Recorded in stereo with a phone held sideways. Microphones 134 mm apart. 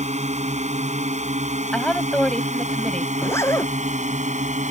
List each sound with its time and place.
0.0 s a drone: 65° right (ahead or behind); by 4.7 s 70° right (ahead or behind)
1.7 s a woman speaking: 5° left (ahead or behind)
3.1 s a zipper: 20° left (ahead or behind)